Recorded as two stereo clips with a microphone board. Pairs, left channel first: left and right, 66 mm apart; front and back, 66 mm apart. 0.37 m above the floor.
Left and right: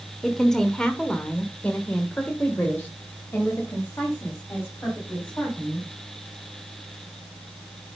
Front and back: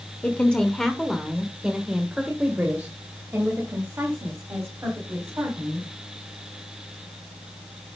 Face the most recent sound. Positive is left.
turn(degrees=145)